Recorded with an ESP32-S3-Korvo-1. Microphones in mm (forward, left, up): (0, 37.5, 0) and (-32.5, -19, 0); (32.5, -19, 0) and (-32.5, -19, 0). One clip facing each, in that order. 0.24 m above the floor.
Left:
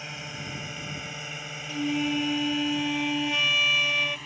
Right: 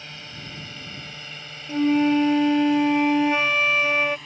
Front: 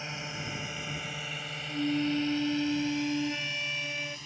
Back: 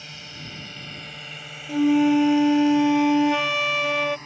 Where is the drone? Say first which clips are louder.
Left 2 dB, front 3 dB; 10° left; by 4.3 s 145° left.